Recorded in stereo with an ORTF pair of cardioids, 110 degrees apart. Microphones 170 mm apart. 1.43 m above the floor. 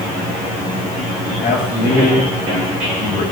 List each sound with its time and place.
1.4 s a man speaking: 70° left, 7.5 m